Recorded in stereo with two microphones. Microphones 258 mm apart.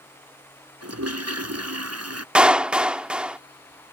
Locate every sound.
0.8 s a toilet flushing: 75° right (ahead or behind)
2.4 s a clap: 5° right (ahead or behind)